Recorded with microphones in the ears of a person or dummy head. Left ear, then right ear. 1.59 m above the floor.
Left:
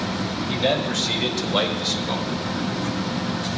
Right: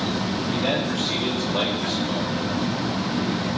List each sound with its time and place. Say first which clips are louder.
0.5 s a man speaking: left 3 dB; 80° left, 3.5 m; by 2.3 s 85° left, 2.5 m